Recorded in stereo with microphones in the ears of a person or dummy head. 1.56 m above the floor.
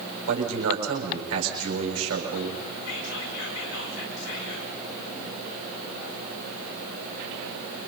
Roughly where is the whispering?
Left.